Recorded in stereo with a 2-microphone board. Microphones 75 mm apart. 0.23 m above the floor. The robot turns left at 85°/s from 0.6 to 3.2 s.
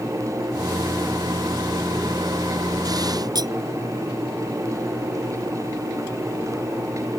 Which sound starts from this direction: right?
Cutlery clinking, at 3.4 s.